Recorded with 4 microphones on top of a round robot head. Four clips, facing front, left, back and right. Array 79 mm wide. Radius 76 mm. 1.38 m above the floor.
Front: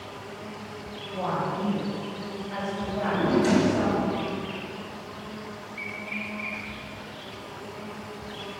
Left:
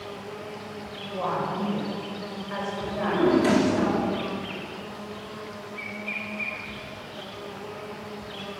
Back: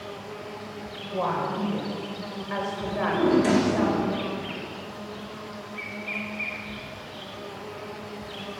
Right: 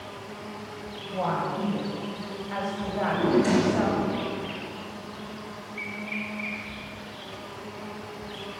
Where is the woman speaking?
160° left, 5.5 m.